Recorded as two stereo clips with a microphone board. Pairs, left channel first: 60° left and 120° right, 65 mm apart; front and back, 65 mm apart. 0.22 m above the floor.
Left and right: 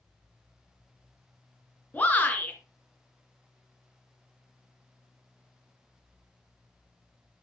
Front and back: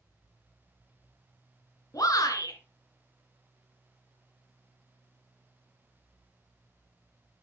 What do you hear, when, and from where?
1.9 s a shout: straight ahead, 2.5 m